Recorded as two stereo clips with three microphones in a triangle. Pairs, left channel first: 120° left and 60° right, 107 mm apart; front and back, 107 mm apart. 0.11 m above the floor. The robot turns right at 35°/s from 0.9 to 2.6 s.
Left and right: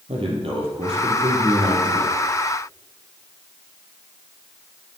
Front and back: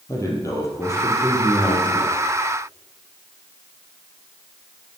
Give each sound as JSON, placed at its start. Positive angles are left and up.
{"t": 0.1, "sound": "a man speaking", "azimuth_deg": -55, "distance_m": 2.5}